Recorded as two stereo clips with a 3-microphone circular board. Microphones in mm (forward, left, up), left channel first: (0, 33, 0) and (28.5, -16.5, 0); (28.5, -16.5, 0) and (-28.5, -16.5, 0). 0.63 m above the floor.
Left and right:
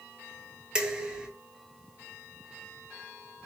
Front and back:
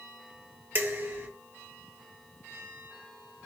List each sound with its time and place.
0.8 s dishes clattering: 135° right, 0.7 m